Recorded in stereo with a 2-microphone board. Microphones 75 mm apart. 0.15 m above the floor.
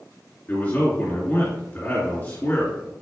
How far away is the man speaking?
About 2.0 m.